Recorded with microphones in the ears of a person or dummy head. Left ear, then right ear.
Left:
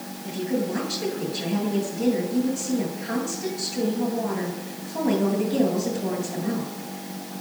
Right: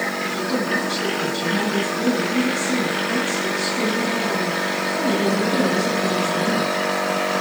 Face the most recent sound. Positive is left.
turn(degrees=10)  # may be behind; listen again after turning